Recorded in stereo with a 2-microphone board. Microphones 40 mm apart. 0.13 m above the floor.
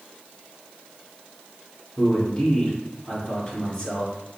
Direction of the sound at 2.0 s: 10° left (ahead or behind).